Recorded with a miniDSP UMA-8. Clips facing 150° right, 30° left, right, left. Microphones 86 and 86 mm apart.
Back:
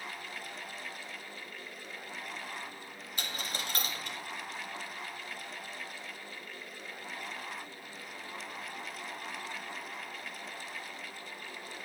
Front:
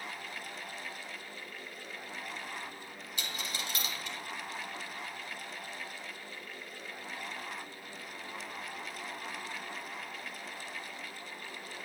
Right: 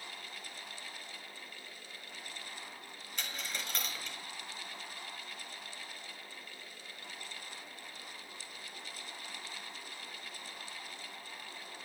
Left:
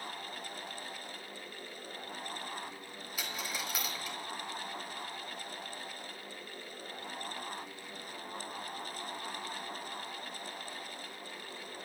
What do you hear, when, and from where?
3.2 s a dropped coin: 175° left, 1.4 m